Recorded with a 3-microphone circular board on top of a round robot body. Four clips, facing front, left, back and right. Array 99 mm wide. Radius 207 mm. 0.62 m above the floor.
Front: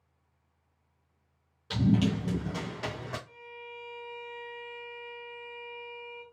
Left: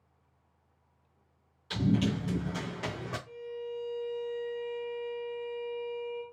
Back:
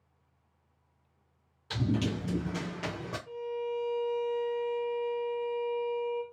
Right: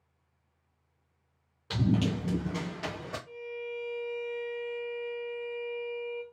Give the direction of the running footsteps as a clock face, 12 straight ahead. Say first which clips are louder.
Even, front 5 dB; 2 o'clock.